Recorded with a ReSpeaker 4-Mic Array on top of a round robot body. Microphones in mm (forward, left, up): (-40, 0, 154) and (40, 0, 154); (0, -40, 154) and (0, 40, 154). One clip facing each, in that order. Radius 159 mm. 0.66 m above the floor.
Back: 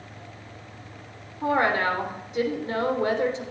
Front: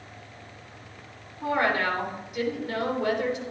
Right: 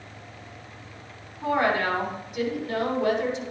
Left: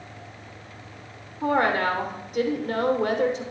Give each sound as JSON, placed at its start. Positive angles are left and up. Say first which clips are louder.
{"t": 1.4, "sound": "a woman speaking", "louder": "back 2 dB, left 1 dB", "azimuth_deg": 125, "distance_m": 3.0}